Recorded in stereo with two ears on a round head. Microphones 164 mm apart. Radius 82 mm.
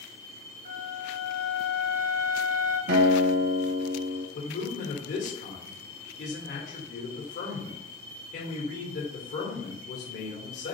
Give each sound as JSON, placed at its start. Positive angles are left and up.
{"t": 0.7, "sound": "a flute", "side_deg": -50, "distance_m": 1.9}
{"t": 2.9, "sound": "a guitar", "side_deg": -60, "distance_m": 0.8}
{"t": 4.3, "sound": "a man speaking", "side_deg": 45, "distance_m": 1.4}